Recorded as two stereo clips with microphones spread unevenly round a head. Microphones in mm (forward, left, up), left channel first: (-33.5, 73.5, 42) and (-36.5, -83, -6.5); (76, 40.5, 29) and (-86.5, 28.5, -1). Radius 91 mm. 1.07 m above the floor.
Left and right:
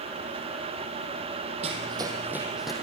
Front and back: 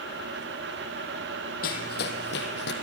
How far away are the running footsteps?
About 3 m.